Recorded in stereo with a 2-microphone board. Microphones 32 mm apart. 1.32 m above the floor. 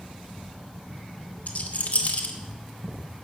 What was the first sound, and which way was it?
A rattle, 65° left (ahead or behind).